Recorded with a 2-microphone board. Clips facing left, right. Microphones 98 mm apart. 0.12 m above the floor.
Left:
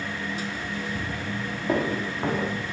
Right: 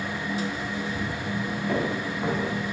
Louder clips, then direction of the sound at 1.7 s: Left 4 dB; 25° left (ahead or behind).